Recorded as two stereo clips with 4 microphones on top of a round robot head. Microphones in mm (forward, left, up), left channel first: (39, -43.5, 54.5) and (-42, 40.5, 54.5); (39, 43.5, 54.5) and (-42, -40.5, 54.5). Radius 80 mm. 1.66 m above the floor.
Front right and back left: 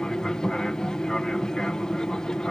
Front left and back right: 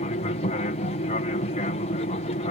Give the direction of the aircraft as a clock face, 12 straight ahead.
11 o'clock.